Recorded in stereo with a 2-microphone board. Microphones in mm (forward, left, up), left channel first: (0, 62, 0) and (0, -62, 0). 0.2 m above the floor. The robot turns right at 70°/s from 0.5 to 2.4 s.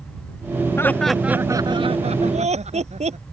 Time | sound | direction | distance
0.8 | laughter | 155° left | ?